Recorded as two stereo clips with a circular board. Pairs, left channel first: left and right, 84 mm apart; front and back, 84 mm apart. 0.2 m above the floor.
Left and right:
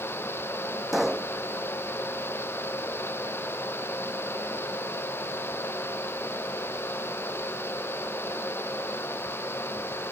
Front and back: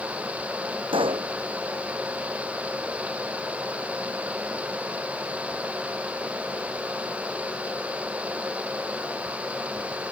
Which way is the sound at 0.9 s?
175° right.